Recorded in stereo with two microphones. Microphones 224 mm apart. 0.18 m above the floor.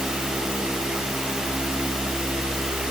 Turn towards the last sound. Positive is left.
No sound to turn to.